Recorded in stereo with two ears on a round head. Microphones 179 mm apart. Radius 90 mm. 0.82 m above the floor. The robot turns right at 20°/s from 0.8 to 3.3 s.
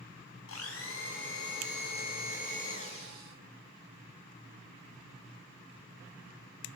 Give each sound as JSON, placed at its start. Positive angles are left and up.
{"t": 0.5, "sound": "a blender", "azimuth_deg": 100, "distance_m": 6.5}